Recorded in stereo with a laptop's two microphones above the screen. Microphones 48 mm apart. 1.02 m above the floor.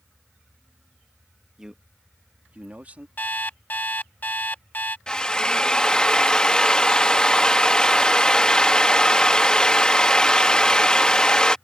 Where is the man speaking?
10° right (ahead or behind); by 3.1 s 35° right (ahead or behind).